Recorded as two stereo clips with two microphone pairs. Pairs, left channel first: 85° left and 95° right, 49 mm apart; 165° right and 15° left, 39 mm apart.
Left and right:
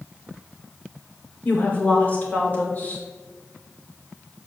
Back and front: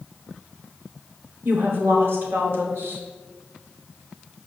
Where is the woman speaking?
30° left, 2.5 m.